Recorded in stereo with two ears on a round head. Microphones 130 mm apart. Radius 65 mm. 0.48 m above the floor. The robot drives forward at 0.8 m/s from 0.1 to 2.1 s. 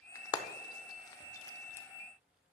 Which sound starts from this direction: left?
Frying, at 0.1 s.